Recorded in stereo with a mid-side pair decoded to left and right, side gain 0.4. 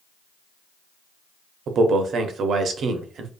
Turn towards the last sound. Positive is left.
turn(degrees=-65)